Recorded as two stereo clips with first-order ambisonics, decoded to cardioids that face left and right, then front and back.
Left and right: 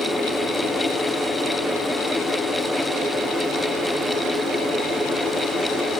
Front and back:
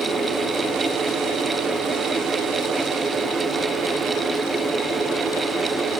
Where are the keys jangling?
I don't hear keys jangling.